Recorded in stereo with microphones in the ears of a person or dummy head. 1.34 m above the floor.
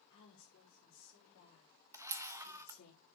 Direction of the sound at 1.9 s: 15° right (ahead or behind).